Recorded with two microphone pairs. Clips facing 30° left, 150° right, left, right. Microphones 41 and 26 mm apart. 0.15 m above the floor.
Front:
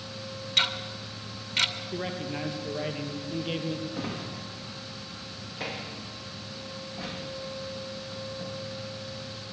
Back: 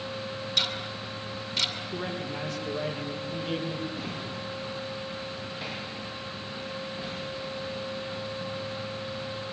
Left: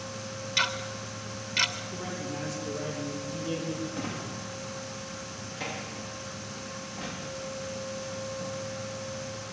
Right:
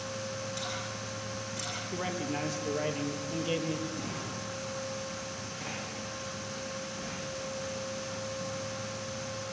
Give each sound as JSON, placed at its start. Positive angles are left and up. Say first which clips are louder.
{"t": 0.6, "sound": "ticking", "louder": "front 3 dB, left 8 dB", "azimuth_deg": 70, "distance_m": 2.0}
{"t": 1.9, "sound": "a man speaking", "louder": "even, right 2 dB", "azimuth_deg": -40, "distance_m": 4.0}
{"t": 3.9, "sound": "a drawer", "louder": "even, left 2 dB", "azimuth_deg": 30, "distance_m": 8.0}